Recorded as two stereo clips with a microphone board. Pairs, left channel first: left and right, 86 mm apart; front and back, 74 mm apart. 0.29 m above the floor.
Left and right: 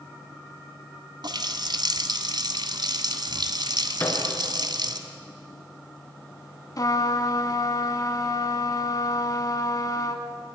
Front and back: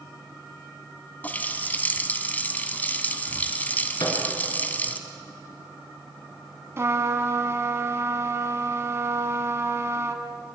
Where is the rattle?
No rattle in this recording.